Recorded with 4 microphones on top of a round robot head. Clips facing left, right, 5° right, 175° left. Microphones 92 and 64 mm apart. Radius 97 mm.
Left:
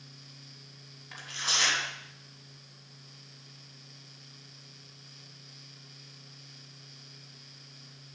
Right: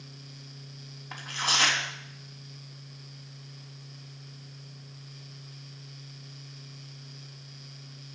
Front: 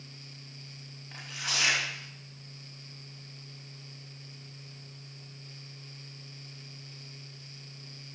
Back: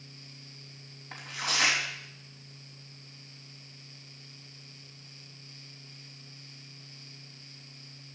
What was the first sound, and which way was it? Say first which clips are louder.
Tearing paper: right 5 dB, back 3 dB; 130° right.